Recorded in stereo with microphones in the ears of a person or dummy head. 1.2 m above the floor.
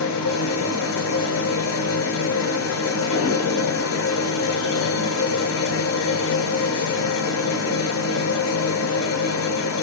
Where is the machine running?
65° left (ahead or behind), 0.8 m.